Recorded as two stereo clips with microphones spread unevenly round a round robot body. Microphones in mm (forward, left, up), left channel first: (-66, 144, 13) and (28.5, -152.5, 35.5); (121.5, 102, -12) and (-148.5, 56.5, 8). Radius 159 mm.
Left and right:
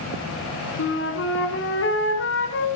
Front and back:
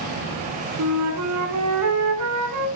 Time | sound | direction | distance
0.8 | a flute | 165° left | 2.5 m